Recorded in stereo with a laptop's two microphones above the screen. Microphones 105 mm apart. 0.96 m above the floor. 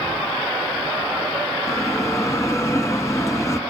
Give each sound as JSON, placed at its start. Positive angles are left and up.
{"t": 1.7, "sound": "a bell", "side_deg": 30, "distance_m": 1.6}